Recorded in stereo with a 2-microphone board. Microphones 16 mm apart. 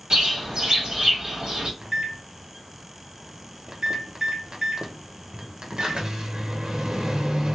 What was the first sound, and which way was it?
A bird, 55° right (ahead or behind).